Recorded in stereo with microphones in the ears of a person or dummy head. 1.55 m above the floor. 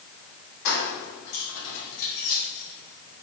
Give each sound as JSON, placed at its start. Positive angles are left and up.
{"t": 0.7, "sound": "keys jangling", "side_deg": 60, "distance_m": 1.5}